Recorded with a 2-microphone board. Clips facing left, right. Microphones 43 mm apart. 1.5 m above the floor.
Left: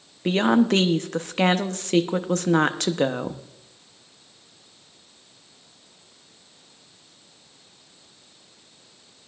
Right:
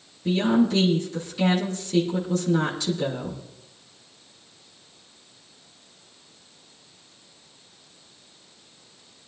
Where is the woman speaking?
70° left (ahead or behind), 1.0 m.